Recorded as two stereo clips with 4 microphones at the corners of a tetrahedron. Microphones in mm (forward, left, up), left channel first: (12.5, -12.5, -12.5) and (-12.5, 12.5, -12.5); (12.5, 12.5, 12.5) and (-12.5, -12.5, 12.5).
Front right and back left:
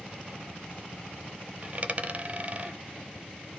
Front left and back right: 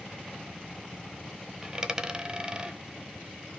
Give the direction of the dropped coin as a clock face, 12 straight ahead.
6 o'clock.